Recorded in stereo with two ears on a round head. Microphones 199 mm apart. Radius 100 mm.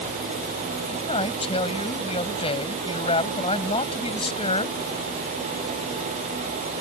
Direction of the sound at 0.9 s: 25° left (ahead or behind).